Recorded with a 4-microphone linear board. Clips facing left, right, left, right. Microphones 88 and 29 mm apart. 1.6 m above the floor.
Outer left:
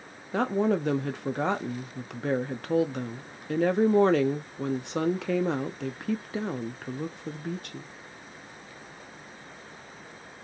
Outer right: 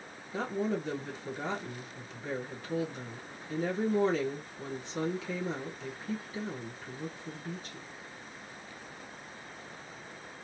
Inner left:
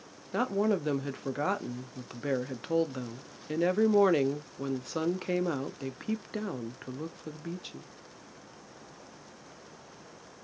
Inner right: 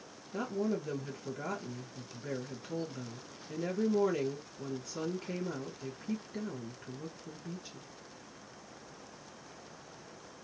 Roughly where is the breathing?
I don't hear breathing.